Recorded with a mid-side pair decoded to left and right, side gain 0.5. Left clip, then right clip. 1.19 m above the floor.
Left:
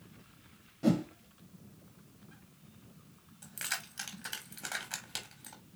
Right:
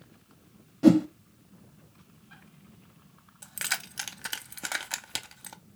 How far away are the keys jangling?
About 0.7 m.